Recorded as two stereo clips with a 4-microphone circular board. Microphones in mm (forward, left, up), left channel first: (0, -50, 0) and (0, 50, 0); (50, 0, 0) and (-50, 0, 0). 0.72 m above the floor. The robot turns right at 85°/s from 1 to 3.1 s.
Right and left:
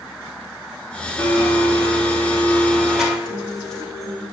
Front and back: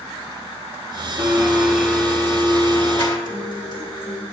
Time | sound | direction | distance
1.2 | a blender | 150° right | 1.3 m
3.2 | a guitar | 5° right | 1.4 m